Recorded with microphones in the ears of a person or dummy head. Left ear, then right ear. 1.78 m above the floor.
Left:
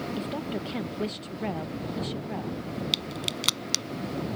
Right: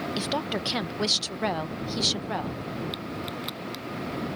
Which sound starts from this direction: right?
A woman speaking, at 0.2 s.